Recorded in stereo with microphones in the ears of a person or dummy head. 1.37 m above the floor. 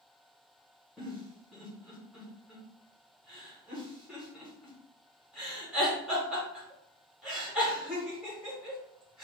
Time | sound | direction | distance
1.0 | a giggle | centre (ahead or behind) | 1.2 m